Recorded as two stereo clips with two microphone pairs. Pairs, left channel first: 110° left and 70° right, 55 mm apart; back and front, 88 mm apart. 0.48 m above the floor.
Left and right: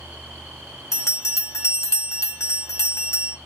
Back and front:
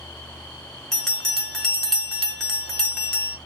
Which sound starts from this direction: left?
A bell, at 0.9 s.